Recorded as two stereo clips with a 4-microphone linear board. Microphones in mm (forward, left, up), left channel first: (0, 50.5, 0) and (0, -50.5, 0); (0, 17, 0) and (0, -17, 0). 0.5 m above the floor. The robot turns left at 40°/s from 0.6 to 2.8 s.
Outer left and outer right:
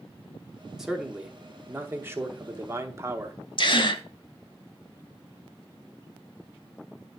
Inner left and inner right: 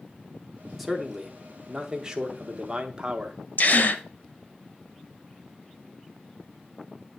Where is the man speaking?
5° right (ahead or behind), 0.8 m; by 3.4 s 25° right (ahead or behind), 0.8 m.